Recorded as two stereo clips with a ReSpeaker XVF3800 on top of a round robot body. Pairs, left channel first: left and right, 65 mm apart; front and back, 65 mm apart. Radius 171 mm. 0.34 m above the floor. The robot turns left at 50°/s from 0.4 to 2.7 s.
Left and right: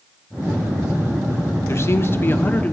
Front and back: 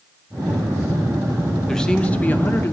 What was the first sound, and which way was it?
A man speaking, 80° left.